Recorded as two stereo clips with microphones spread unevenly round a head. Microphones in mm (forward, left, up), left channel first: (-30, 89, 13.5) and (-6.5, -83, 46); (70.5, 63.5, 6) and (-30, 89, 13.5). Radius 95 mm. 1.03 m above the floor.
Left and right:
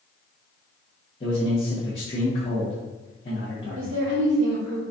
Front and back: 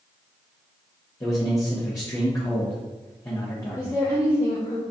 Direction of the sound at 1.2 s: 45° left.